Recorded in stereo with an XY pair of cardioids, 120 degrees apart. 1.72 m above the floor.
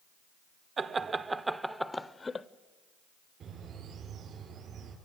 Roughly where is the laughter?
Ahead right.